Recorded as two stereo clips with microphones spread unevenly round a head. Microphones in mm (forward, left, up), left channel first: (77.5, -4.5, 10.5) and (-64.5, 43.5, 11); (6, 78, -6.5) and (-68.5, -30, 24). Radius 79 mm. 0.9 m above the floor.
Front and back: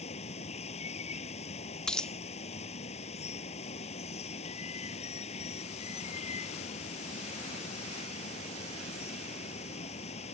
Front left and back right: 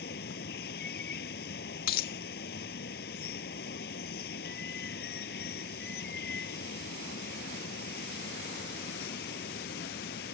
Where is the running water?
30° left.